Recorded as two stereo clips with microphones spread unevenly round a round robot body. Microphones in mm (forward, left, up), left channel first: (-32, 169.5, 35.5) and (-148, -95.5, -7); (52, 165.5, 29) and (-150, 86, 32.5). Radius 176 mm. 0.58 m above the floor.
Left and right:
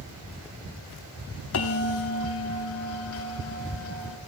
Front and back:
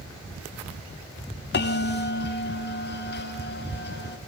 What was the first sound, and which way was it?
A bell, 25° left.